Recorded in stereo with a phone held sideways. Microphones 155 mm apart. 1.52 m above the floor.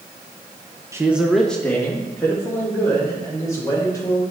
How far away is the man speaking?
About 0.8 m.